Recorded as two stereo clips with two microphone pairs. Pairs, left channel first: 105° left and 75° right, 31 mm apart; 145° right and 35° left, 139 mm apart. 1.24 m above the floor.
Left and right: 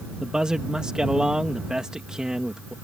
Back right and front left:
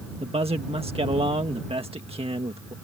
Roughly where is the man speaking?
Ahead.